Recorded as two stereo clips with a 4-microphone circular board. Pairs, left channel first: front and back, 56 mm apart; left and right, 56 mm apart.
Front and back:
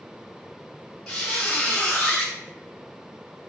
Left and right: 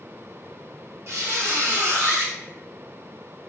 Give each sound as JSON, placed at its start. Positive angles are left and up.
{"t": 1.1, "sound": "a squeak", "azimuth_deg": -75, "distance_m": 0.9}